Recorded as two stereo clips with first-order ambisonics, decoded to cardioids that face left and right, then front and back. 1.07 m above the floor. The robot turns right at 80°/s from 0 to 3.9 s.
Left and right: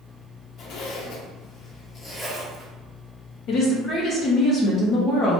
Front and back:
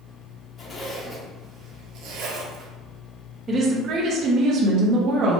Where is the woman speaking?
110° left, 0.8 m; by 5.4 s 145° left, 0.8 m.